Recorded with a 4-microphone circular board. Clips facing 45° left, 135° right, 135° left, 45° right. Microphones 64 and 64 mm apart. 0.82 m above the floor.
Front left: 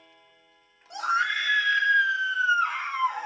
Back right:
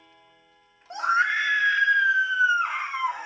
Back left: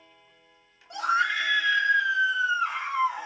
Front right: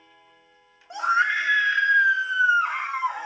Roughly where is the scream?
Right.